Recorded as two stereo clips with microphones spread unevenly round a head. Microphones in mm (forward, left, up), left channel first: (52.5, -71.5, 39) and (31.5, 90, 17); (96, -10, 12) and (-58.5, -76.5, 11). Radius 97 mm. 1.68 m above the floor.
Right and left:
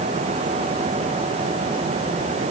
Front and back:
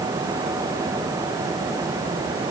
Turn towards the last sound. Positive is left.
No sound to turn to.